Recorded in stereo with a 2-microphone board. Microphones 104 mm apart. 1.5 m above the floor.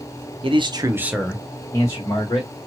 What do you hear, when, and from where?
0.4 s a man speaking: 60° right (ahead or behind), 0.7 m; by 2.5 s 45° left (ahead or behind), 1.4 m